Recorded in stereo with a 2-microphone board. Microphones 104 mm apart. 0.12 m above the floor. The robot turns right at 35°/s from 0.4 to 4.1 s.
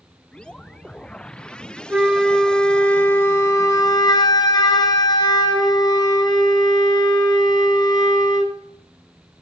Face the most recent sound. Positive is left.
turn(degrees=60)